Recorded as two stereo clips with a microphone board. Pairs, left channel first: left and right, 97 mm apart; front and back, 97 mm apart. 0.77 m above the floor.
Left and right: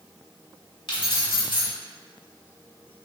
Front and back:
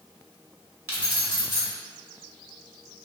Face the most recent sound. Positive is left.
turn(degrees=115)